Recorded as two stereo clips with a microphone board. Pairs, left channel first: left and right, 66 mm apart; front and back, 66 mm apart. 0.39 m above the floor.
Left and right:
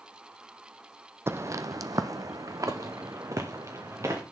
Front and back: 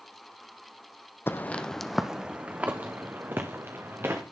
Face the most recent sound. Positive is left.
turn(degrees=-130)